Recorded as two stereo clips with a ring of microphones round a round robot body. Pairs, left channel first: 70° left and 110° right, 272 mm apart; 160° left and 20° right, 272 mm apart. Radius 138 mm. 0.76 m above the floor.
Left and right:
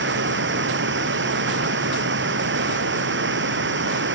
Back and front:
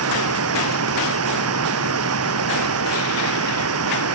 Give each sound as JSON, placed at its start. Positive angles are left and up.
{"t": 0.0, "sound": "running water", "azimuth_deg": -60}